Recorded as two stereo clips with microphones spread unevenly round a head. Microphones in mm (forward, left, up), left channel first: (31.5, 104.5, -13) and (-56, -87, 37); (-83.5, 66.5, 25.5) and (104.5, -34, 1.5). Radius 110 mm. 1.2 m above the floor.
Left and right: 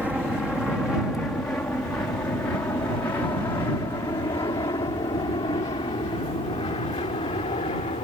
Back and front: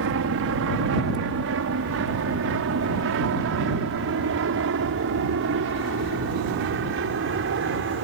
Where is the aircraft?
25° right; by 8.1 s straight ahead.